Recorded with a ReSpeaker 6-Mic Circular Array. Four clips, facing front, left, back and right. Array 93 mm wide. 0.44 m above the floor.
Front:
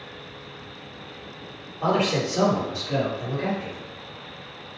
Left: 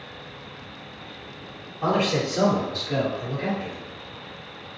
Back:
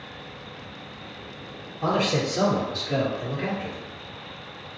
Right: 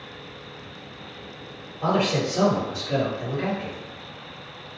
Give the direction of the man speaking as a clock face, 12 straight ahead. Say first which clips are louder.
Even, front 1 dB; 12 o'clock.